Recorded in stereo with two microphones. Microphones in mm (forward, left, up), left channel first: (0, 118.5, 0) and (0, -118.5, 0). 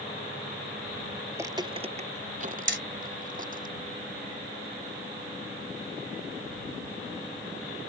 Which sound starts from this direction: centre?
Footsteps, at 1.3 s.